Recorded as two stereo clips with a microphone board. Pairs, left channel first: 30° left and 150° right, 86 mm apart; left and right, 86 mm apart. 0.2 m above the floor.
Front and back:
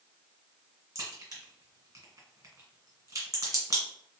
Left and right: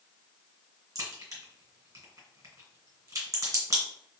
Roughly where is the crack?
Behind right.